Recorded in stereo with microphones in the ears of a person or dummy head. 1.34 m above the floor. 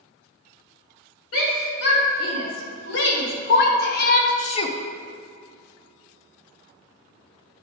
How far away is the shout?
About 2.5 m.